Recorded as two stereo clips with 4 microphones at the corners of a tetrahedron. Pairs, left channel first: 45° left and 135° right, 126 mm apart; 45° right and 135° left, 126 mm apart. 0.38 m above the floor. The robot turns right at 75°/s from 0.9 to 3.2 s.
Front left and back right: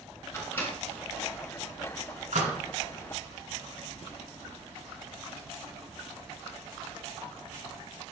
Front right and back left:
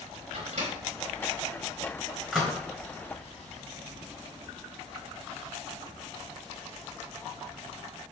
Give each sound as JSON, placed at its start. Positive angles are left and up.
{"t": 0.3, "sound": "a microwave", "azimuth_deg": 120, "distance_m": 3.5}